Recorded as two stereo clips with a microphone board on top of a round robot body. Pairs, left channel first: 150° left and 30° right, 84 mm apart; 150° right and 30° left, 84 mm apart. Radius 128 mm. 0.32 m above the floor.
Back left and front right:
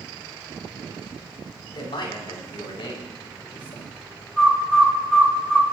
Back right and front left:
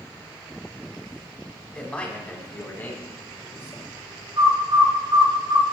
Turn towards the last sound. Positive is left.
turn(degrees=65)